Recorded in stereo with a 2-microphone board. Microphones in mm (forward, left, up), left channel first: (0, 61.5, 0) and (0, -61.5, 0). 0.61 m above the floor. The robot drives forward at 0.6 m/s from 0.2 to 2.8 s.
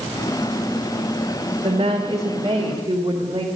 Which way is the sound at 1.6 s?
50° right (ahead or behind).